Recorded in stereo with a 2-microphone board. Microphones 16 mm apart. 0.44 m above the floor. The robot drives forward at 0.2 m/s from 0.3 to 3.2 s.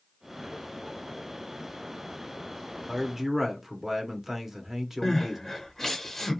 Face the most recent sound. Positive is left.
turn(degrees=20)  # may be behind; listen again after turning